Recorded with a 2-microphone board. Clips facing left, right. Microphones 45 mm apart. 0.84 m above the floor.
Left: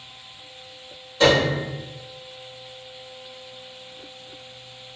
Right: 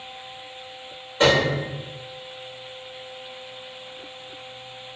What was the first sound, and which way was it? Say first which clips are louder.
A piano: left 1 dB; 30° right (ahead or behind).